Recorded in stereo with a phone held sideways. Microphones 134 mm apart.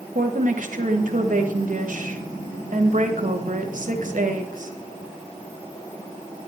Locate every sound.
0.1 s a woman speaking: 75° right (ahead or behind), 1.3 m